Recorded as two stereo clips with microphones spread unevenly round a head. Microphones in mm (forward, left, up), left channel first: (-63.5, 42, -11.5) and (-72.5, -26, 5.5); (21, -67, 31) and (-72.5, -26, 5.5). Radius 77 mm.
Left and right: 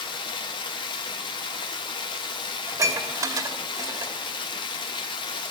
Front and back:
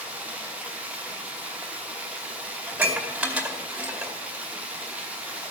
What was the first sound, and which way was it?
Running water, 75° left.